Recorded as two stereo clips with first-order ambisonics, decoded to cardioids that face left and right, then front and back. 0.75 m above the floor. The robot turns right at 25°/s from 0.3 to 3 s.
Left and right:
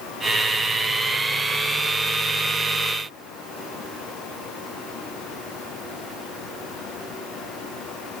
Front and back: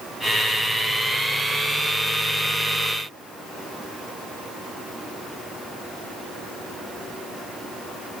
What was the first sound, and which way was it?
Only background noise.